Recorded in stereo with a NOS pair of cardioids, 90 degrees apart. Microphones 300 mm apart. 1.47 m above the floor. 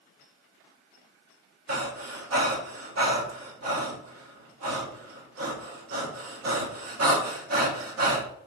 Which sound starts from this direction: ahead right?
Breathing, at 1.7 s.